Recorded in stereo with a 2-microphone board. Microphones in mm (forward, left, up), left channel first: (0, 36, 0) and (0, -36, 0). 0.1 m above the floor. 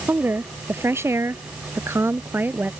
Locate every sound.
0.1 s a woman speaking: 30° right (ahead or behind); by 2.7 s 25° right (ahead or behind)